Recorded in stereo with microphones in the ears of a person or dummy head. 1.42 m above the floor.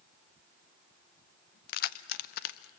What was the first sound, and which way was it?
Keys jangling, 55° left (ahead or behind).